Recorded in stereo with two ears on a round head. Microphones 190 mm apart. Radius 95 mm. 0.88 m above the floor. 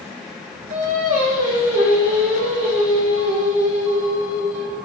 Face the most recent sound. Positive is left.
turn(degrees=-35)  # may be behind; listen again after turning